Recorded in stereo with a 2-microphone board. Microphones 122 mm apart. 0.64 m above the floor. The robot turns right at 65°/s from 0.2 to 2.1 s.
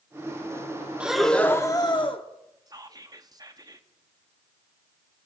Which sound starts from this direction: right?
Whispering, at 2.7 s.